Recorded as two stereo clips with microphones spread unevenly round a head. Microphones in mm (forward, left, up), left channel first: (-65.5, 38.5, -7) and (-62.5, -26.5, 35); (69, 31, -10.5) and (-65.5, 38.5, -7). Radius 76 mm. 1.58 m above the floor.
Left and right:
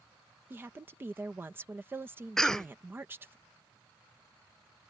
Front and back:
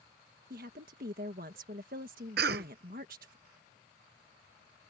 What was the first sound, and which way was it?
A woman speaking, 145° right.